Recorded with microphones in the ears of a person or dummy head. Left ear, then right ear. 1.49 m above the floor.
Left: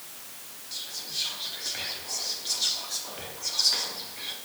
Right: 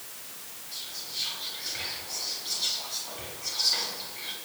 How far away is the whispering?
About 3 m.